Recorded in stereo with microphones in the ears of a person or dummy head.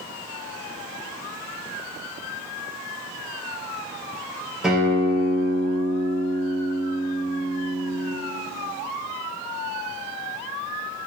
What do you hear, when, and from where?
4.6 s a guitar: 5° right (ahead or behind), 4 m